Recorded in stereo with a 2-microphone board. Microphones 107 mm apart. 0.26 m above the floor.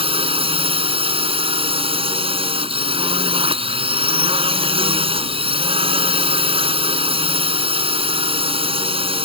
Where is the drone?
60° right (ahead or behind).